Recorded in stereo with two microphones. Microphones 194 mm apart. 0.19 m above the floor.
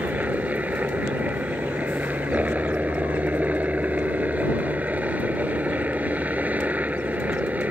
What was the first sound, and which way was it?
A helicopter, 5° right (ahead or behind).